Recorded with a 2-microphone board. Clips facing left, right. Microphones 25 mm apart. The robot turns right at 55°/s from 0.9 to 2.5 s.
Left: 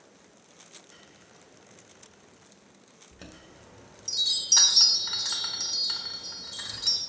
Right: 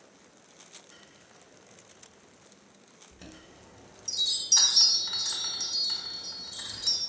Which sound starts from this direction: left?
A chime, at 3.1 s.